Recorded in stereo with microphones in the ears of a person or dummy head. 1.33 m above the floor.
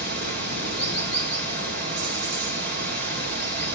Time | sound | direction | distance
0.0 | running water | 50° right (ahead or behind) | 3.5 m